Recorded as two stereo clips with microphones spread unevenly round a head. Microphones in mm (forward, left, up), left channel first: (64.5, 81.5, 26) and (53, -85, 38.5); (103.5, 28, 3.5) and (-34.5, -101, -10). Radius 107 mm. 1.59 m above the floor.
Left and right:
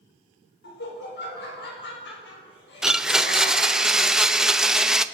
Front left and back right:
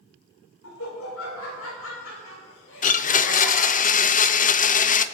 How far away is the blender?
About 0.7 m.